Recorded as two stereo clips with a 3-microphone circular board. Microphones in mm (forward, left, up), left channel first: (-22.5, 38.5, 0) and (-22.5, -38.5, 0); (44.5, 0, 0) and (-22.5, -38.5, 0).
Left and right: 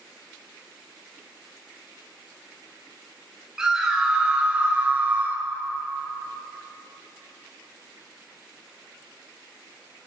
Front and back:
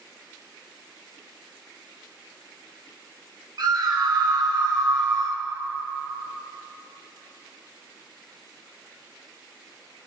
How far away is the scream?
About 1.8 m.